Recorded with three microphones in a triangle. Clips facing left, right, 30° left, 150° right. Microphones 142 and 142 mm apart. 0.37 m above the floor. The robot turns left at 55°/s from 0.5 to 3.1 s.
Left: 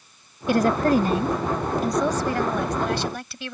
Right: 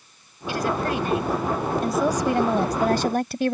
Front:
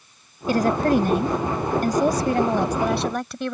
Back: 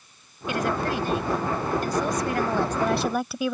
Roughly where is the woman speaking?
Left.